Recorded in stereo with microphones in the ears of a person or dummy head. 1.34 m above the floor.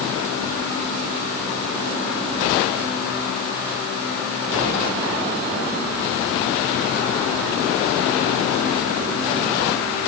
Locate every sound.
Only background noise.